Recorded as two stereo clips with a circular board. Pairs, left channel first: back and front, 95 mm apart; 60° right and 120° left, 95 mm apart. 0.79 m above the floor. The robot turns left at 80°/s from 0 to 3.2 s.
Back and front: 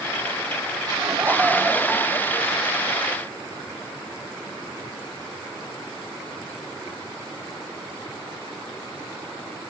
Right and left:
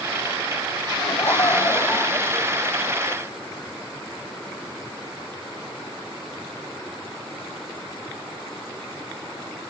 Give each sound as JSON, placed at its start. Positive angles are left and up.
{"t": 1.0, "sound": "laughter", "azimuth_deg": -35, "distance_m": 0.9}